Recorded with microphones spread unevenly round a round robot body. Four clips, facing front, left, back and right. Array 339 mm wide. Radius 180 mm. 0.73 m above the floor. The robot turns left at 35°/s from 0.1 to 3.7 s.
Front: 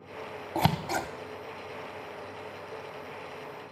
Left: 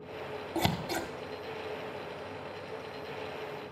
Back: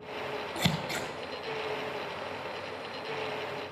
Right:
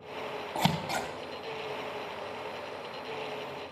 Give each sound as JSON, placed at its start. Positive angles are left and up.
{"t": 0.6, "sound": "scissors", "azimuth_deg": 15, "distance_m": 0.6}